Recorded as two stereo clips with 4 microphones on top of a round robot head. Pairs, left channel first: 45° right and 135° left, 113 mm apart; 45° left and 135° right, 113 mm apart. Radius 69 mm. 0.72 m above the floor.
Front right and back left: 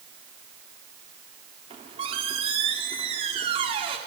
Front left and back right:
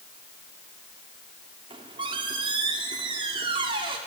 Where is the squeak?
175° left, 1.3 m.